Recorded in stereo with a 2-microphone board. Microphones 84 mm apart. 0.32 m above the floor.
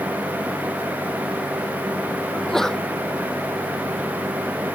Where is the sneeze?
5° left (ahead or behind).